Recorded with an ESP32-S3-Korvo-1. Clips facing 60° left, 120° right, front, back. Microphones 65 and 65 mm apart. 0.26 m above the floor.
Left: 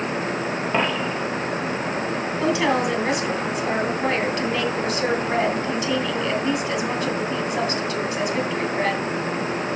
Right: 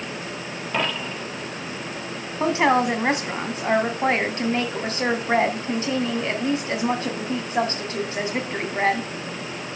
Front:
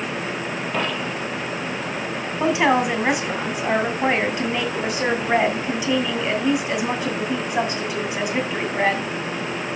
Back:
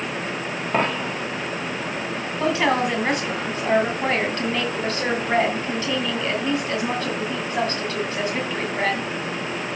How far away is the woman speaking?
About 2.5 m.